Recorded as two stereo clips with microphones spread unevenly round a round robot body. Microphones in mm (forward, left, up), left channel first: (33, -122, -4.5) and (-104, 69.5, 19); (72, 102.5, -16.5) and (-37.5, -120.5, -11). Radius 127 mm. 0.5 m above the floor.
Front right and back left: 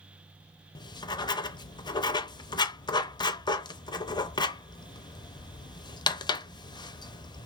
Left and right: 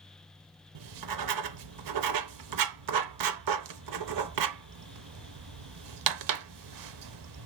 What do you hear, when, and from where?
0.8 s writing: 130° right, 0.6 m